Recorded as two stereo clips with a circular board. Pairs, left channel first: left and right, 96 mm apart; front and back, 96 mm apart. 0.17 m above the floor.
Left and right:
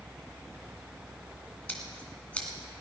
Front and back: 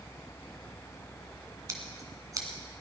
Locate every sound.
1.7 s scissors: 160° left, 2 m